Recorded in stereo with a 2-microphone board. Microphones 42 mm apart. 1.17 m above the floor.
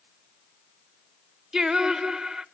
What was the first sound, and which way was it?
Singing, 10° right (ahead or behind).